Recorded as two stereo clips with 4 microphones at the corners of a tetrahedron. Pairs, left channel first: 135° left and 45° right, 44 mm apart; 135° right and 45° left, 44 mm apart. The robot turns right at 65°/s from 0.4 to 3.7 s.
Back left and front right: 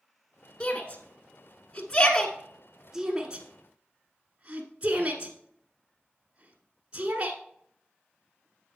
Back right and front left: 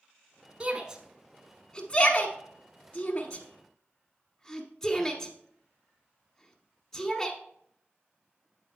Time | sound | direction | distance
0.6 | a shout | 95° left | 1.1 m